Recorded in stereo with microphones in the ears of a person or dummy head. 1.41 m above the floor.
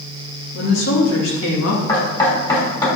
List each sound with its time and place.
0.5 s a woman speaking: 85° left, 3 m; by 1.8 s 75° left (ahead or behind), 2.5 m
1.9 s knocking: 25° left (ahead or behind), 3 m